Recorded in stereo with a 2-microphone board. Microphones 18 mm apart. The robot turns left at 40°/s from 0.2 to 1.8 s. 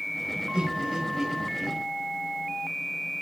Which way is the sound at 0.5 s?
55° right (ahead or behind).